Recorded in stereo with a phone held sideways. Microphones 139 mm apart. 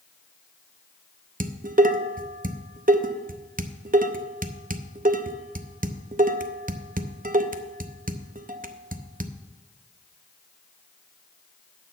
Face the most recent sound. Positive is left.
turn(degrees=-80)